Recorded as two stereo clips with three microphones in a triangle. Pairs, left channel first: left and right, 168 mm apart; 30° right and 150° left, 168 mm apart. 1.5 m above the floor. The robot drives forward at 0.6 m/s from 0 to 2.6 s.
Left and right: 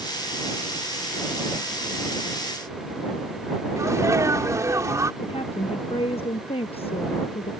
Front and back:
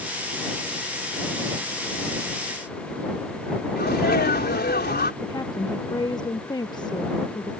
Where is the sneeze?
20° right.